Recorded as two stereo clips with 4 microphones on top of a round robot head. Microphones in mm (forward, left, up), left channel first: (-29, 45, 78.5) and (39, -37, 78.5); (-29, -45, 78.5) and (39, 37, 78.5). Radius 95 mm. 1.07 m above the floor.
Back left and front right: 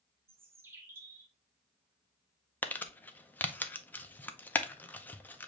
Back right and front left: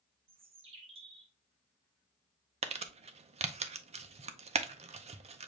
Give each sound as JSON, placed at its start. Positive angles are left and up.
{"t": 0.3, "sound": "a bird", "azimuth_deg": 15, "distance_m": 0.6}
{"t": 2.6, "sound": "crumpling", "azimuth_deg": 55, "distance_m": 0.7}